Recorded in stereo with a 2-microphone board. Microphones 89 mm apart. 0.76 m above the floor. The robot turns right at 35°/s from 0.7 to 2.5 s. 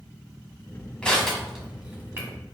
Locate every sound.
1.0 s crushing: 10° left (ahead or behind), 1.4 m; by 2.3 s 30° right (ahead or behind), 1.4 m